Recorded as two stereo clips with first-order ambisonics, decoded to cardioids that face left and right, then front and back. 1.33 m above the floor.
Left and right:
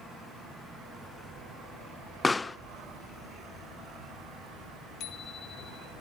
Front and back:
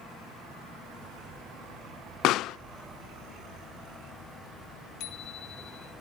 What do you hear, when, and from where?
2.2 s a pop: 15° left, 0.6 m
5.0 s a bicycle bell: 40° left, 2.5 m